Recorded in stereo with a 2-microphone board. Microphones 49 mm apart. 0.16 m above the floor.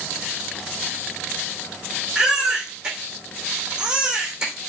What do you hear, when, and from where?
2.1 s a baby crying: 15° right (ahead or behind), 3.5 m